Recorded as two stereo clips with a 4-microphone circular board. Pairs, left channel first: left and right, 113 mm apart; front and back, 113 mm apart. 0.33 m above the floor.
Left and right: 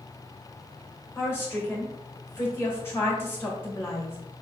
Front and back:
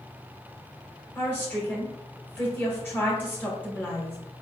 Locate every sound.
1.1 s a woman speaking: 50° left, 1.3 m